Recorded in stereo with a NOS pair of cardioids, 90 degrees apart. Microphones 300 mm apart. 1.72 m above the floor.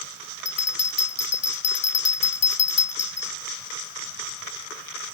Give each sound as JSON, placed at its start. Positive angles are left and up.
{"t": 0.5, "sound": "a bell", "azimuth_deg": 60}